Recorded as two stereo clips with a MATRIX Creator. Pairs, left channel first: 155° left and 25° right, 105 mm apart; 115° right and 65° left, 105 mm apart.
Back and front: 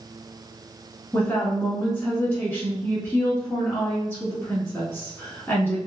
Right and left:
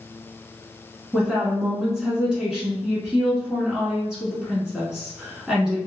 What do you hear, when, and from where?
1.1 s a woman speaking: 140° left, 1.1 m